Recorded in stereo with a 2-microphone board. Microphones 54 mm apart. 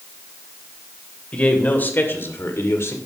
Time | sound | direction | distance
1.3 | a man speaking | 30° left (ahead or behind) | 2.5 m